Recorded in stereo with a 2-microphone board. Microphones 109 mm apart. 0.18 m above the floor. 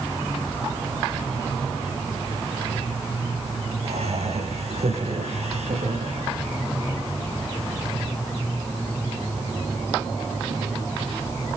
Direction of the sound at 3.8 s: 70° right (ahead or behind).